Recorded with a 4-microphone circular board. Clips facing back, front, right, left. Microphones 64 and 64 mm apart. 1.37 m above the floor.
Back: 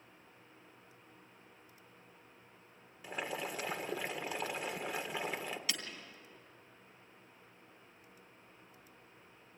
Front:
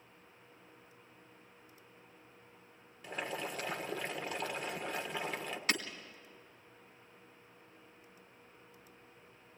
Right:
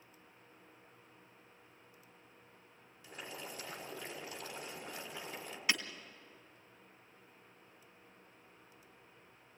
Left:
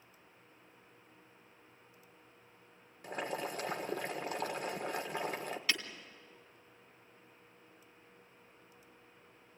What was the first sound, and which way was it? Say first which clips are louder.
Boiling: even, left 9 dB; 100° left.